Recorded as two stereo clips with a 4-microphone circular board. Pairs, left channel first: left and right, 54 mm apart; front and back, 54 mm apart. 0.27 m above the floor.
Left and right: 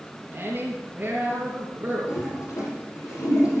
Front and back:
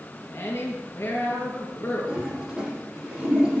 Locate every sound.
0.3 s a woman speaking: 40° right, 3.5 m
2.1 s a toilet flushing: 105° left, 7.5 m